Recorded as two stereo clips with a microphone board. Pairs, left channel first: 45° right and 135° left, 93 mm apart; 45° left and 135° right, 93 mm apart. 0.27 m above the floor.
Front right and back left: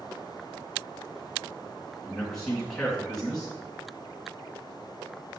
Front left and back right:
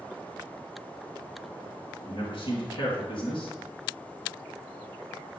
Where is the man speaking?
40° left, 3 m.